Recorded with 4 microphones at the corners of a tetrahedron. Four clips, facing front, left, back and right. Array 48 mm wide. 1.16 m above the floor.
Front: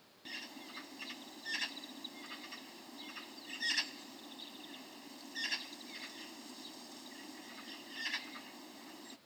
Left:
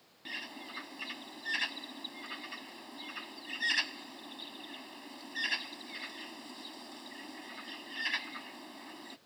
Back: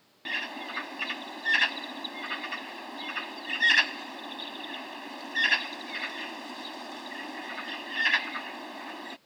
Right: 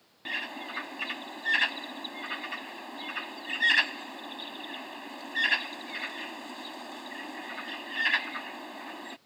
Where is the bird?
145° right.